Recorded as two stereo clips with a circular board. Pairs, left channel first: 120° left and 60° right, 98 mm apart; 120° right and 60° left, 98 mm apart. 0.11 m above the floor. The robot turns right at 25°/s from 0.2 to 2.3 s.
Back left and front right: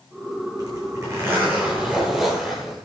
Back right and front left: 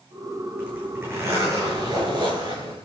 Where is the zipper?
15° right, 8 m; by 2.9 s 30° left, 8 m.